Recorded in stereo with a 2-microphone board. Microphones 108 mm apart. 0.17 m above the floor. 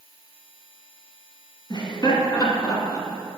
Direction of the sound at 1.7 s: 40° left (ahead or behind).